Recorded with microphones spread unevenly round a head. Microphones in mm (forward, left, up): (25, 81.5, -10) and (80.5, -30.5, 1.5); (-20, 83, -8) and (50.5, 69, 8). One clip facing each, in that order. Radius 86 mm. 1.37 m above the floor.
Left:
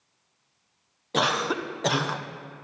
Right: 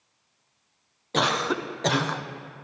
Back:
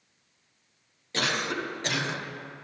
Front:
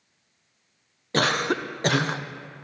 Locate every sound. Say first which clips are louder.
1.1 s a cough: right 1 dB, front 6 dB; 30° left, 0.5 m